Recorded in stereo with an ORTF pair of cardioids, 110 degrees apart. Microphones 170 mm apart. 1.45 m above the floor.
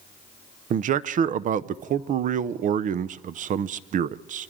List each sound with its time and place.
0.7 s a man speaking: 50° right, 0.7 m